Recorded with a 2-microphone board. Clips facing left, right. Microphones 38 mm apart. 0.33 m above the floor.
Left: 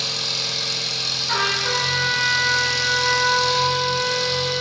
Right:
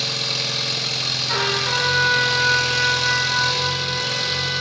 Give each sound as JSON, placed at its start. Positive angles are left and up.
{"t": 0.0, "sound": "an engine running", "side_deg": -30, "distance_m": 1.9}
{"t": 1.3, "sound": "a trumpet", "side_deg": 35, "distance_m": 4.5}